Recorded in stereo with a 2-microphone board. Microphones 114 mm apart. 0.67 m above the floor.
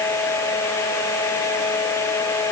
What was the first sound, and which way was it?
Only background noise.